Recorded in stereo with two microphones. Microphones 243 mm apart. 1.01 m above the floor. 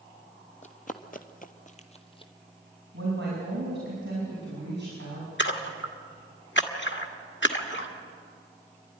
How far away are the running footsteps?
About 1.5 m.